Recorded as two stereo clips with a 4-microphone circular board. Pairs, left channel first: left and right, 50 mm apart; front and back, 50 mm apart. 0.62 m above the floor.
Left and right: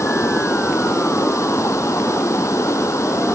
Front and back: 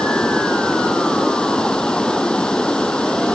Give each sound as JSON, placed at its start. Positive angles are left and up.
{"t": 0.0, "sound": "running water", "azimuth_deg": 75}